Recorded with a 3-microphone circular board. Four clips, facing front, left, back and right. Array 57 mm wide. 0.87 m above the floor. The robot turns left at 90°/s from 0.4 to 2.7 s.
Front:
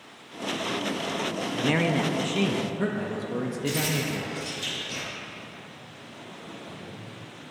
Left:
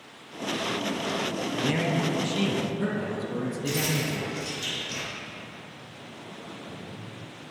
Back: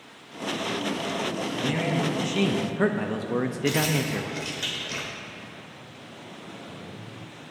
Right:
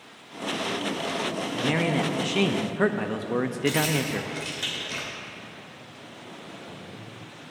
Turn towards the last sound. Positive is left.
turn(degrees=-135)